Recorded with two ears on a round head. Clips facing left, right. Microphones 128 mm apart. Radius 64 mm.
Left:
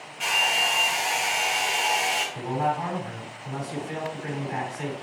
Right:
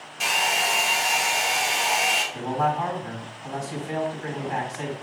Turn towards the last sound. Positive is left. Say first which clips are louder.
# right 3 dB
turn(degrees=-50)  # may be behind; listen again after turning